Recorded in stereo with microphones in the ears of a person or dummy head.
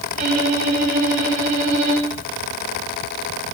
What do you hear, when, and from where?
0.1 s a violin: 45° right (ahead or behind), 3 m